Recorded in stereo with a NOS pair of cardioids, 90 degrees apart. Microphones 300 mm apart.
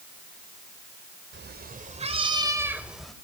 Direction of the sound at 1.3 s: 35° right.